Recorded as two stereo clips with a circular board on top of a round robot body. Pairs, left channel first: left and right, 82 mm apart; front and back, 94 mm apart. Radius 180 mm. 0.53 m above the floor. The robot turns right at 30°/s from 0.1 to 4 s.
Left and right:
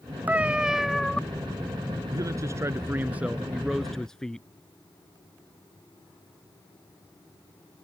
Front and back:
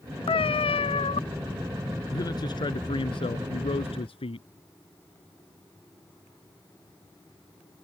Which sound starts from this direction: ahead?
A cat meowing, at 0.3 s.